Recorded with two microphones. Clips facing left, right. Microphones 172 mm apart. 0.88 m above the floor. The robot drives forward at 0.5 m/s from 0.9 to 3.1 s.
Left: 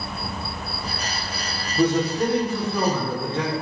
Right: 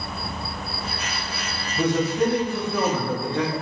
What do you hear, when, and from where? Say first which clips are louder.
1.8 s a man speaking: left 1 dB; 5° left (ahead or behind), 1.0 m; by 3.5 s centre (ahead or behind), 1.6 m